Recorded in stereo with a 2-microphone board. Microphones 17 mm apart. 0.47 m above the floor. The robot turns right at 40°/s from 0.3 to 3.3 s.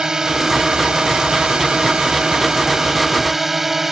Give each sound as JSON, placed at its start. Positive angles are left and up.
{"t": 0.0, "sound": "a drone", "azimuth_deg": -140}